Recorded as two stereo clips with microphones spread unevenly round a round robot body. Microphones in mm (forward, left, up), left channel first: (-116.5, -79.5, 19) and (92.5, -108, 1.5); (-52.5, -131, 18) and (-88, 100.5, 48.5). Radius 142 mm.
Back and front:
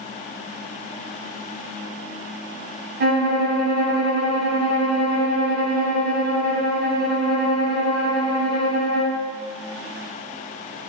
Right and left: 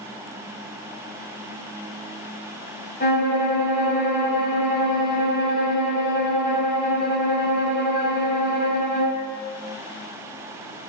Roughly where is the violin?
Ahead right.